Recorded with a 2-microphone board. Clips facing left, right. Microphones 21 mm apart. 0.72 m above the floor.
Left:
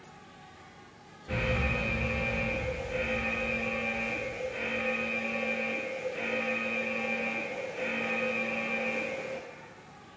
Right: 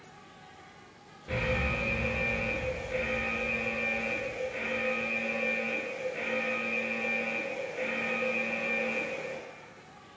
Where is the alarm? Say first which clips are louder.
Even; 25° right (ahead or behind), 0.8 m.